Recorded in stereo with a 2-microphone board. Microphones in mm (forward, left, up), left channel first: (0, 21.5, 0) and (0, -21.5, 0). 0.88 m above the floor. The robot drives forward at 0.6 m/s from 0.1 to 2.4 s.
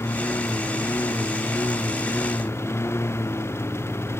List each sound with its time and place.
0.0 s a lawn mower: 90° left; by 4.2 s 80° left